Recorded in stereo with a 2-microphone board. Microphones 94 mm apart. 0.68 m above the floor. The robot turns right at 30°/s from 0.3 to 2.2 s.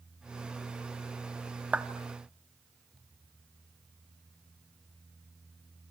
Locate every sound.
1.7 s a clap: 15° right (ahead or behind), 1.0 m; by 1.9 s 20° right (ahead or behind), 1.0 m